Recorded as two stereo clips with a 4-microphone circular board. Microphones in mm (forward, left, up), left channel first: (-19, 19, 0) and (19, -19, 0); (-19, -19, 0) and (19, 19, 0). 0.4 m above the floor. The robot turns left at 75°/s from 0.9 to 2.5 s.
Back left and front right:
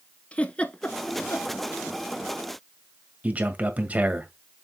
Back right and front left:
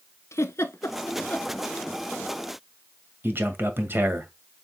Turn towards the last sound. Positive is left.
turn(degrees=10)